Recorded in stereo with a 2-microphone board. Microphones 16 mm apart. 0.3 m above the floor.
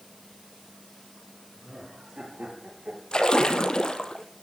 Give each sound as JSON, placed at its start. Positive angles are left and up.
{"t": 1.6, "sound": "laughter", "side_deg": -75, "distance_m": 8.0}
{"t": 3.1, "sound": "a splash", "side_deg": 50, "distance_m": 1.4}